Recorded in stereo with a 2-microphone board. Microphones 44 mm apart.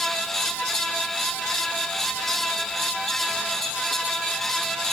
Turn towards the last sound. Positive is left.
No sound to turn to.